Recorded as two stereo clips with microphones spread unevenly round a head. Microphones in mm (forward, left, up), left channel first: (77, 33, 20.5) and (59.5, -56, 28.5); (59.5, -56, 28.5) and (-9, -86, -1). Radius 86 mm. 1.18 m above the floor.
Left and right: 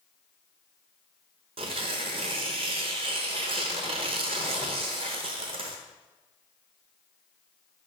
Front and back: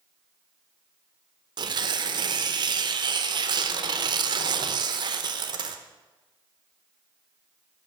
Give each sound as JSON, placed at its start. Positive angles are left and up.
{"t": 1.6, "sound": "tearing paper", "azimuth_deg": -150, "distance_m": 0.9}